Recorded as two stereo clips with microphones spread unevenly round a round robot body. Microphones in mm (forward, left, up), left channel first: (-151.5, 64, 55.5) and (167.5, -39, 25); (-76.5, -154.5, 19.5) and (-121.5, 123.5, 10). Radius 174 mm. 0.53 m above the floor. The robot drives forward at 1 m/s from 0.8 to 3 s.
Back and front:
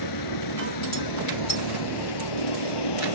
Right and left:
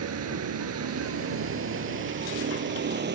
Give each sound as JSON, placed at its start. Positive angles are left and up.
{"t": 0.0, "sound": "a vehicle", "azimuth_deg": 135}